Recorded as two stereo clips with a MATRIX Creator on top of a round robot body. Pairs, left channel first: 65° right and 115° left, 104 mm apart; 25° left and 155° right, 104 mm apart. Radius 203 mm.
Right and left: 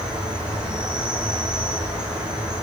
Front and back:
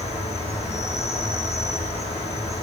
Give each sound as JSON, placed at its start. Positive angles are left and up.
{"t": 0.0, "sound": "an insect", "azimuth_deg": 30, "distance_m": 8.5}